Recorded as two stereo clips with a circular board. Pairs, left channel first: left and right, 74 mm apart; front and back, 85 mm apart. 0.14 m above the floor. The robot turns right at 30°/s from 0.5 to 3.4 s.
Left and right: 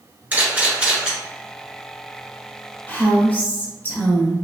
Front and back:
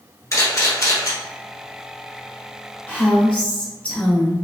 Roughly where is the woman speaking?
Ahead left.